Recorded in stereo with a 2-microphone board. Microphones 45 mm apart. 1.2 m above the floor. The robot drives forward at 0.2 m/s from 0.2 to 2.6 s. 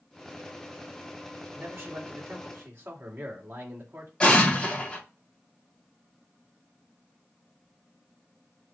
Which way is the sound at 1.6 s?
60° right (ahead or behind).